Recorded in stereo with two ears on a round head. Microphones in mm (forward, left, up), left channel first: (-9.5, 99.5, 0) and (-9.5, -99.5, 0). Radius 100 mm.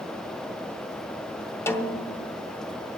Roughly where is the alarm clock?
No alarm clock in this recording.